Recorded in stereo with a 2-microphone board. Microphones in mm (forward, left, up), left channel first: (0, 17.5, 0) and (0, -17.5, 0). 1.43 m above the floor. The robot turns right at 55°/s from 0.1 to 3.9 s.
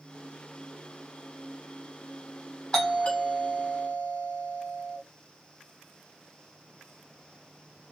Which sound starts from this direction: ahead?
A doorbell, at 2.7 s.